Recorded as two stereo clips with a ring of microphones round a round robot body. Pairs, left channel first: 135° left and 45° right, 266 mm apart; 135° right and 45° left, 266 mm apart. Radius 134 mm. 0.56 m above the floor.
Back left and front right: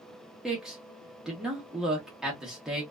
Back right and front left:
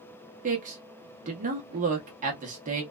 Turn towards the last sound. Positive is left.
turn(degrees=40)